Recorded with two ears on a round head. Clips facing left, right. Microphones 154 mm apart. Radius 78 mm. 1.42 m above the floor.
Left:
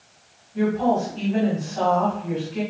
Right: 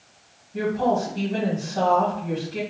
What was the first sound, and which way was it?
A woman speaking, 55° right (ahead or behind).